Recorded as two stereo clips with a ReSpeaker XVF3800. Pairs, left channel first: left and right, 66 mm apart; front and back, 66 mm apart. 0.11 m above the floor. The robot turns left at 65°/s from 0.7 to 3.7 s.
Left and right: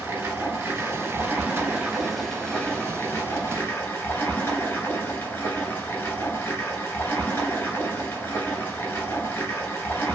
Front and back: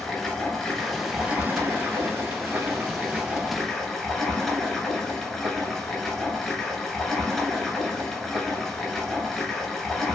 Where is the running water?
85° right, 0.7 m; by 10.2 s 80° left, 0.7 m.